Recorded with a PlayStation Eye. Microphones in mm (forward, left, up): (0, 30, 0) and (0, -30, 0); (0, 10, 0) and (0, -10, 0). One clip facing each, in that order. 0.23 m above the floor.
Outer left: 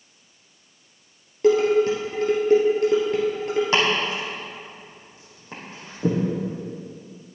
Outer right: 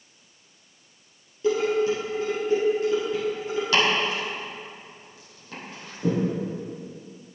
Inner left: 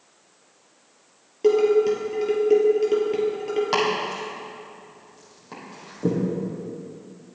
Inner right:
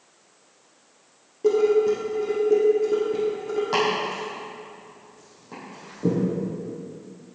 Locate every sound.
1.4 s dishes clattering: 60° left (ahead or behind), 3.5 m
3.7 s chopping: 30° left (ahead or behind), 4.5 m